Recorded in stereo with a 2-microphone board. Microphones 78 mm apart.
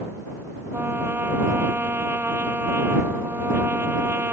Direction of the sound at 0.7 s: 30° right (ahead or behind).